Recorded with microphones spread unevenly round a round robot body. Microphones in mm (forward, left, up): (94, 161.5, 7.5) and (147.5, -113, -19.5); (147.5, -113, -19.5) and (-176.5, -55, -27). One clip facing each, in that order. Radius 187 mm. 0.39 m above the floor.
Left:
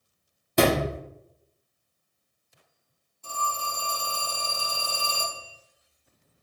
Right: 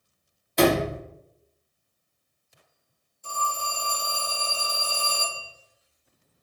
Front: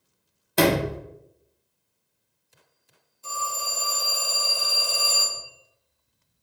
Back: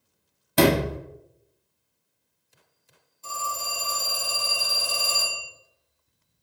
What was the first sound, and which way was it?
A sliding door, 145° left.